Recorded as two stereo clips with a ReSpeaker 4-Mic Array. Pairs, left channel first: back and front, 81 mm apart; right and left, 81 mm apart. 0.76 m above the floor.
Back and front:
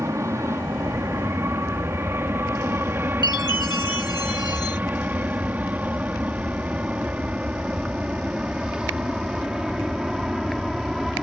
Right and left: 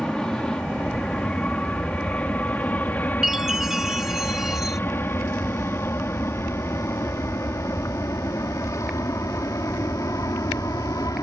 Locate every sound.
0.0 s an aircraft: 15° right; by 11.2 s 85° right
3.2 s a chime: 175° left